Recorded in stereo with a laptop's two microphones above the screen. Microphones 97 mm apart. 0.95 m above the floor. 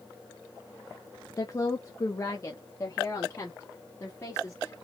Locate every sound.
1.4 s a woman speaking: 30° left (ahead or behind), 0.8 m; by 4.7 s 25° left (ahead or behind), 2.5 m